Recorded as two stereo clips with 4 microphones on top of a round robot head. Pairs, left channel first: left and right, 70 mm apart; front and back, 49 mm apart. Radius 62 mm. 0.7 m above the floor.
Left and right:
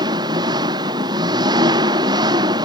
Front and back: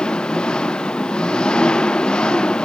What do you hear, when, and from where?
0.0 s an engine running: 75° right